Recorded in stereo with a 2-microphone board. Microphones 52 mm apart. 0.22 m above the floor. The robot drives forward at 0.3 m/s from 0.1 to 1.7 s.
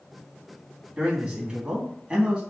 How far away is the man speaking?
About 2 m.